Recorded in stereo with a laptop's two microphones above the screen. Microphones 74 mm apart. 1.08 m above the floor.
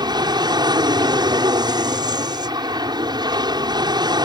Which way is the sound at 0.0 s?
70° right (ahead or behind).